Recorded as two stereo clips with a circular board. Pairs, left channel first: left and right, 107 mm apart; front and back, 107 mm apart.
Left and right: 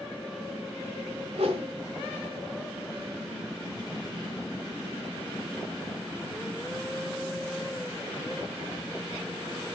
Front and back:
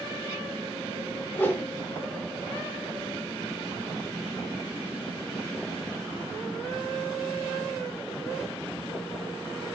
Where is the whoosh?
70° right, 1.8 m.